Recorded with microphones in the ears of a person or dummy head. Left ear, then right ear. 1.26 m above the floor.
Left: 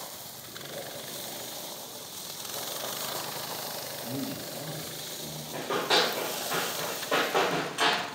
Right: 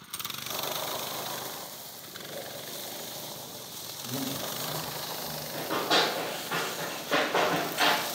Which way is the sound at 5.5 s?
30° left (ahead or behind).